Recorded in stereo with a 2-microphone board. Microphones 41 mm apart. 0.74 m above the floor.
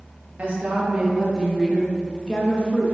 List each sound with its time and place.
0.4 s a woman speaking: 40° right (ahead or behind), 1.3 m; by 3.0 s 35° left (ahead or behind), 1.3 m